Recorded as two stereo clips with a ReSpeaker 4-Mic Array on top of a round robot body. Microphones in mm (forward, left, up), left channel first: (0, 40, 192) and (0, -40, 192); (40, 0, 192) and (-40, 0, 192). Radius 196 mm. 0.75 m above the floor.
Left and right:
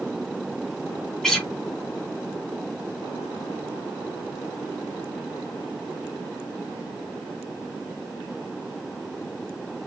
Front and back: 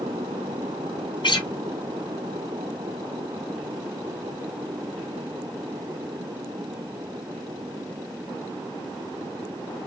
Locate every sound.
1.2 s a guitar: 10° left, 3.5 m